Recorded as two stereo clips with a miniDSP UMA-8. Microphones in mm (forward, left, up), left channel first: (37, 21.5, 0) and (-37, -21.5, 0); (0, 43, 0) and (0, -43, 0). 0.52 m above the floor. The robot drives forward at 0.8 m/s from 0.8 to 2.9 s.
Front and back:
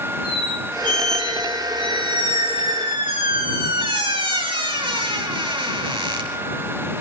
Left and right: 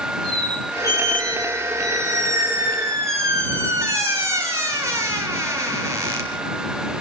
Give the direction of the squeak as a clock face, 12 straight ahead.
4 o'clock.